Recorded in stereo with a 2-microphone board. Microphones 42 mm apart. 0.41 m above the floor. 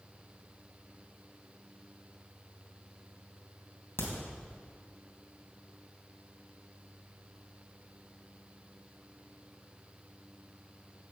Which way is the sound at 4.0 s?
65° left (ahead or behind).